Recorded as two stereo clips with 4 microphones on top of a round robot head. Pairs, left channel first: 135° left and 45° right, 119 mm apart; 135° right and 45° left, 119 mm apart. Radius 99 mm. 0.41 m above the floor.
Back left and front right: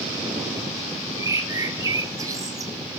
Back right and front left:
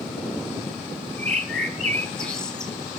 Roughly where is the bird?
Ahead right.